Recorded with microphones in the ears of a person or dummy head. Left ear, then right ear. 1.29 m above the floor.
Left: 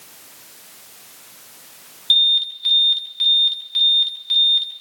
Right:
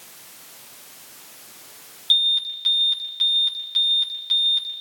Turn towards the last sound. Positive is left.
turn(degrees=-5)  # may be behind; listen again after turning